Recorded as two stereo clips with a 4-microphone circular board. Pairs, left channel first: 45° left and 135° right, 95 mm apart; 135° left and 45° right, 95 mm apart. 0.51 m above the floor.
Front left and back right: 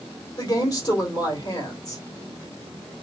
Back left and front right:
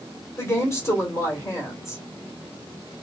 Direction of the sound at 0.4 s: 80° left.